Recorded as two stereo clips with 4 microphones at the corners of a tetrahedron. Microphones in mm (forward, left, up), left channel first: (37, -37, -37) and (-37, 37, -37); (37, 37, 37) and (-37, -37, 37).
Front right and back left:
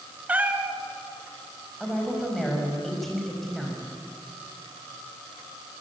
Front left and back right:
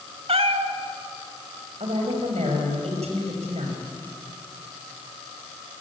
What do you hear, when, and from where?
0.3 s a cat meowing: 150° right, 1.6 m
1.8 s a woman speaking: 135° right, 6 m